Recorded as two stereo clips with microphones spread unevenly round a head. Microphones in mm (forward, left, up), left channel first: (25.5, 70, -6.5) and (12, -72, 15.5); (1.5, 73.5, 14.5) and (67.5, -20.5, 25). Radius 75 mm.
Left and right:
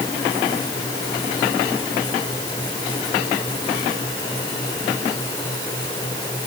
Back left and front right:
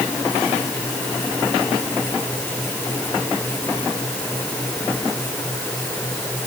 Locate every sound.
Only background noise.